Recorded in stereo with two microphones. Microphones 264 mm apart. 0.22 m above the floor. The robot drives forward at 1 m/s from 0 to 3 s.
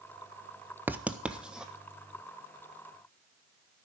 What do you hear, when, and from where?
0.9 s writing: 5° right (ahead or behind), 0.5 m